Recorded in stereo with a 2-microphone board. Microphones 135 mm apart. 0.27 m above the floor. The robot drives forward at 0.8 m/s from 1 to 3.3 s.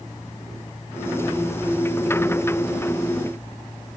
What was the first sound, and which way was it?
Only background noise.